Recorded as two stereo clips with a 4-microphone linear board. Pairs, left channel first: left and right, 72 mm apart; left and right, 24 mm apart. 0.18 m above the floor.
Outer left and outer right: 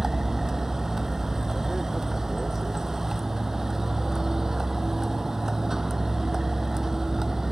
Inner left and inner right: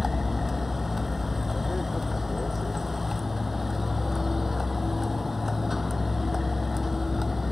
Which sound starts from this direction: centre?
A vehicle, at 0.0 s.